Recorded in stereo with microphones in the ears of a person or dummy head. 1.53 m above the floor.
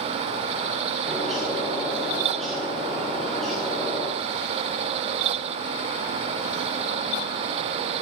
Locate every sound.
1.1 s a bird: centre (ahead or behind), 1.4 m